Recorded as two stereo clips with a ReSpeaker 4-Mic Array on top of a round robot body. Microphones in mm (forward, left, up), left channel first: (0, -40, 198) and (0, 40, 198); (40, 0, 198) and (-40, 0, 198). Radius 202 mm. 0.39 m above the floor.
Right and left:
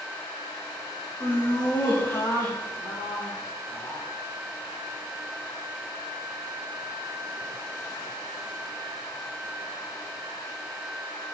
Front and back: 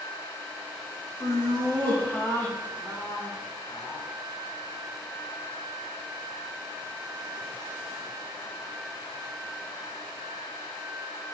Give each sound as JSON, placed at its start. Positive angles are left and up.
{"t": 1.2, "sound": "laughter", "azimuth_deg": -50, "distance_m": 2.5}